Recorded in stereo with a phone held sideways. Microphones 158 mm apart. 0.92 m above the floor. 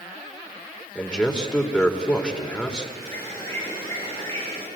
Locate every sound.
0.9 s a man speaking: 5° left (ahead or behind), 3.5 m
3.0 s a bird: 20° left (ahead or behind), 9.5 m